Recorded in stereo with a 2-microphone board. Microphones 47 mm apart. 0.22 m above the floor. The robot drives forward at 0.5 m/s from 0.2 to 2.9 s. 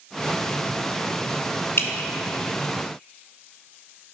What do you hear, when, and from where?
1.8 s dripping: 65° left (ahead or behind), 1.0 m